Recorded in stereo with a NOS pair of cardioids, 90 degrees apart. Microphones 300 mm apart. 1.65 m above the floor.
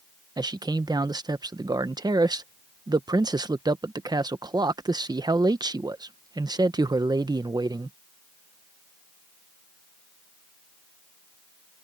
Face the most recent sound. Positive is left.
turn(degrees=-15)